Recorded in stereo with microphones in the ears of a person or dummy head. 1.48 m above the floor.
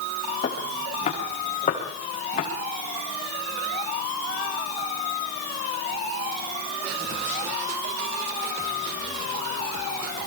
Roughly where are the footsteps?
Left.